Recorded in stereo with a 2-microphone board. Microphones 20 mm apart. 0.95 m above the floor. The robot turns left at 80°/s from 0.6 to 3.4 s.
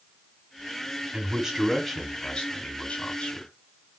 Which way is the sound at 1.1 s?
120° right.